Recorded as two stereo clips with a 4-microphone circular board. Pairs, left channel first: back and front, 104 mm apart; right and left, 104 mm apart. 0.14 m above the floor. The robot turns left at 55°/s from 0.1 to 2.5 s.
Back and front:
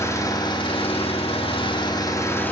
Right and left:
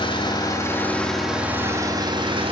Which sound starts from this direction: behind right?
An engine running, at 0.0 s.